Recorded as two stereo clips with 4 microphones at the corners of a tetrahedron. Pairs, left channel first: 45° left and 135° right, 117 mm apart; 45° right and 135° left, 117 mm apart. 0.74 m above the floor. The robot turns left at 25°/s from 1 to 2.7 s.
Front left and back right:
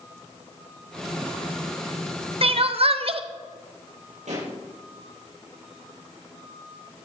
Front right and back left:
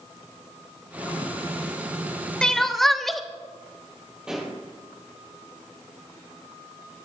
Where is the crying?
125° right, 0.7 m; by 3.2 s 135° right, 0.7 m.